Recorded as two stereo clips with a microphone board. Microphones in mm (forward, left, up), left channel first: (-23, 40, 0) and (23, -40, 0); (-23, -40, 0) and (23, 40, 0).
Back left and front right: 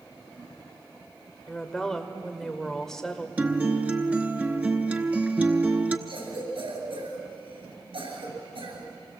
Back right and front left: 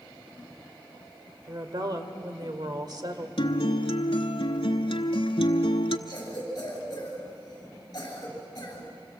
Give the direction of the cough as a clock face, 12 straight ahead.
2 o'clock.